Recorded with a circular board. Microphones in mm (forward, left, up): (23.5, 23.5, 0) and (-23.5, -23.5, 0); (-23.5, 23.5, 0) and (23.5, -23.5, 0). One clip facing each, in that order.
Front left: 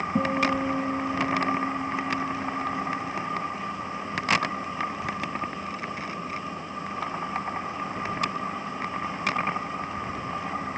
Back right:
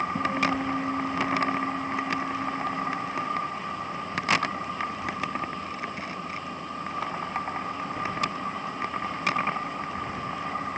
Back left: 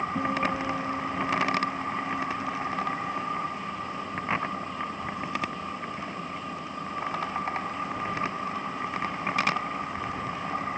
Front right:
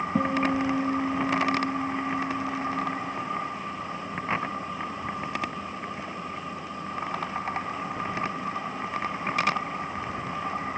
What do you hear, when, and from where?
0.1 s a guitar: 25° right, 2.5 m